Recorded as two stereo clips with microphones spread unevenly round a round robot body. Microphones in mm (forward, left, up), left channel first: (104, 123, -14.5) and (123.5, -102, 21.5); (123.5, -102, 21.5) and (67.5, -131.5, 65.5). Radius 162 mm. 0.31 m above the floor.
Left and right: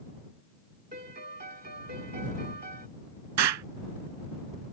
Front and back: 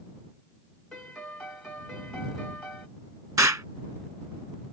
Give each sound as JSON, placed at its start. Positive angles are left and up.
{"t": 0.9, "sound": "a piano", "azimuth_deg": -35}
{"t": 3.4, "sound": "an explosion", "azimuth_deg": -110}